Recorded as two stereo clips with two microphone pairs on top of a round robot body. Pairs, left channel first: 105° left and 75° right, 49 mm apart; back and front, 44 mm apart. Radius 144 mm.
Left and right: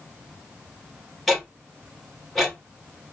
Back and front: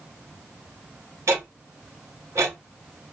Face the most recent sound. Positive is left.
turn(degrees=15)